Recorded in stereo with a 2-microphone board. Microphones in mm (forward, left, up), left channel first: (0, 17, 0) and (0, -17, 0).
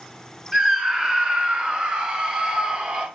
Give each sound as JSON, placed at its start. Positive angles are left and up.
{"t": 0.5, "sound": "a scream", "side_deg": -20, "distance_m": 1.4}